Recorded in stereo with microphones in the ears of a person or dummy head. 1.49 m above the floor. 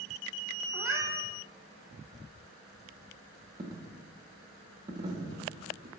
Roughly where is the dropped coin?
Right.